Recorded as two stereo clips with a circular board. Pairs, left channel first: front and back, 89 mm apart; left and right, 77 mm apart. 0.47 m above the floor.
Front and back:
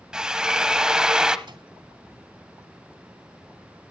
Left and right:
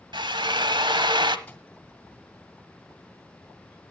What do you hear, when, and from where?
0.1 s a drill: 100° right, 0.9 m
1.5 s a microwave: 160° left, 2 m